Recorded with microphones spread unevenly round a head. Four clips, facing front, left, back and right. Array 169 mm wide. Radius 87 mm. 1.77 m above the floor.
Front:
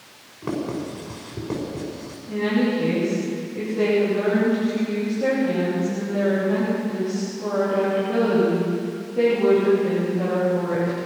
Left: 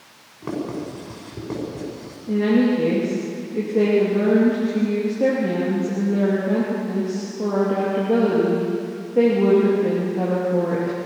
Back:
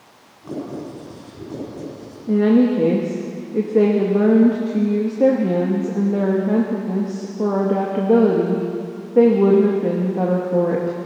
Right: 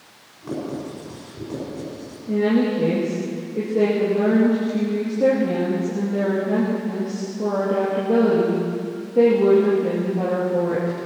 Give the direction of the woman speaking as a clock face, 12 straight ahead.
6 o'clock.